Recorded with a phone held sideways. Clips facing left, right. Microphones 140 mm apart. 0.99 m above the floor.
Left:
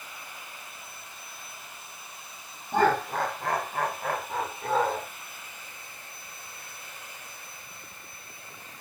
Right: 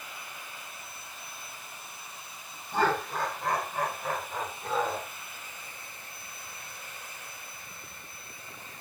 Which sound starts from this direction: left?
Laughter, at 2.7 s.